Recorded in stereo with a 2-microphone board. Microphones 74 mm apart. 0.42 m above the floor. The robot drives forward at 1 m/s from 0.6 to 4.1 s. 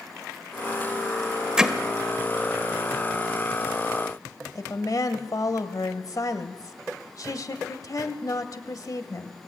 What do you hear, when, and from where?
1.6 s hammering: 10° right (ahead or behind), 1.2 m
4.5 s a woman speaking: 55° left (ahead or behind), 1.9 m